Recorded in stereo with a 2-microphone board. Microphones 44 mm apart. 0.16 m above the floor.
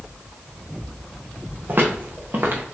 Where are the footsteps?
45° right (ahead or behind), 1.2 m.